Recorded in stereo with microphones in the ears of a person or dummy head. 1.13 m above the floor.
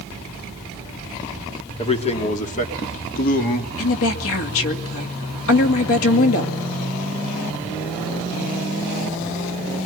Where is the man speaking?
35° left (ahead or behind), 3 m; by 3.7 s 50° left (ahead or behind), 2.5 m.